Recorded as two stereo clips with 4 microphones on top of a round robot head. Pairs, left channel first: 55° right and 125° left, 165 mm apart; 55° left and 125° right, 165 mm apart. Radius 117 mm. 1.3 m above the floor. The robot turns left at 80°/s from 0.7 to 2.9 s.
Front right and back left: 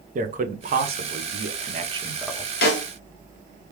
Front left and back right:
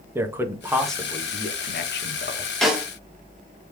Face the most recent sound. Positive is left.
turn(degrees=-55)